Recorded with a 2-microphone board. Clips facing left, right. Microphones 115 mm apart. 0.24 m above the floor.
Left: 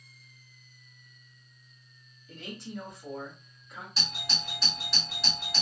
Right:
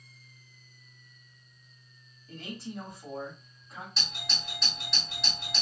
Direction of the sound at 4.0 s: Centre (ahead or behind).